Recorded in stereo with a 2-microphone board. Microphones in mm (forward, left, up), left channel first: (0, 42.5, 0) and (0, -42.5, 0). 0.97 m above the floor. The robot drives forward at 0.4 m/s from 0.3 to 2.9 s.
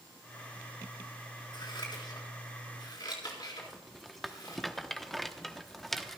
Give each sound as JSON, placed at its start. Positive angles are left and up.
{"t": 1.5, "sound": "scissors", "side_deg": 65, "distance_m": 4.0}
{"t": 3.6, "sound": "a rattle", "side_deg": 5, "distance_m": 0.9}